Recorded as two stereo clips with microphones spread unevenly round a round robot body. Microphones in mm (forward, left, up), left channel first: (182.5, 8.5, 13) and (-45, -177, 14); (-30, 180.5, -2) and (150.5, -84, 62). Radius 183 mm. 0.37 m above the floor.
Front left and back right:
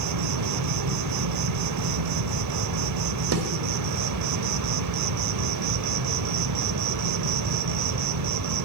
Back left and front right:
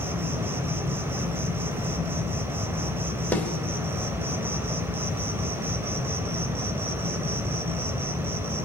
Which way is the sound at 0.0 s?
145° right.